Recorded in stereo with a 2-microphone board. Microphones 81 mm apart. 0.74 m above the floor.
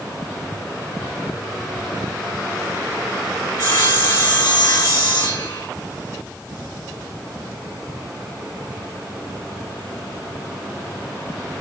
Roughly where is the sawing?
Left.